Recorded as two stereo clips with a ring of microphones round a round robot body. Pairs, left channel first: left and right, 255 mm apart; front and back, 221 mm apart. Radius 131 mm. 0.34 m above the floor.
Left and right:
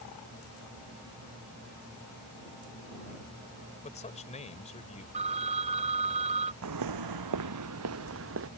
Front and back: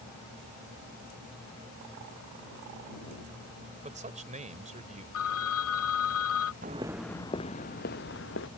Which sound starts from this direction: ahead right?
A phone ringing, at 5.1 s.